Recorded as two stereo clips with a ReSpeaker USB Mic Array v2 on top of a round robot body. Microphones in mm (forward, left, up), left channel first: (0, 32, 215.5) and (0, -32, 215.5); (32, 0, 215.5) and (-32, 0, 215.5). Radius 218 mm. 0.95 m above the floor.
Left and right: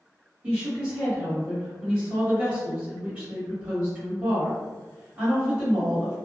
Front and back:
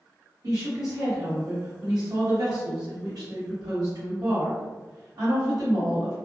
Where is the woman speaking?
165° right, 1.4 m.